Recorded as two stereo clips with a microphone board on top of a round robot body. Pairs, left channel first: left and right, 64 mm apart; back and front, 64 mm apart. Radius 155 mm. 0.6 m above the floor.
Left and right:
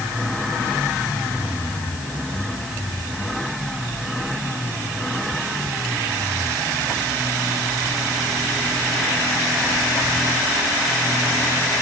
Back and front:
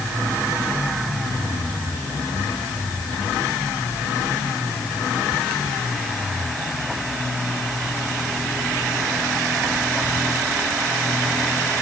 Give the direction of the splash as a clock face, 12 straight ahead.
I don't hear a splash.